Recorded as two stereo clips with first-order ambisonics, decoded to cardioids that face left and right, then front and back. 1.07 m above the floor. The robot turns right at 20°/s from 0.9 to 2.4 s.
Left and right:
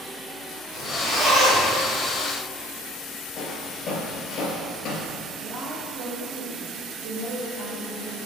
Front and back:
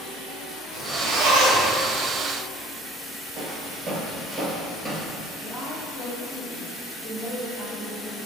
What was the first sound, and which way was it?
A zipper, straight behind.